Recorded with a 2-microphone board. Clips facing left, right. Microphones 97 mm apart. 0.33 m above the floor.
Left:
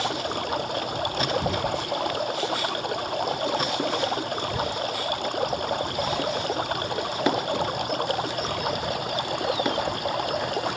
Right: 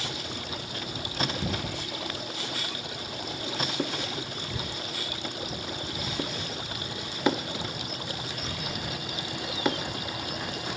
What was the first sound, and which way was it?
Running water, 55° left (ahead or behind).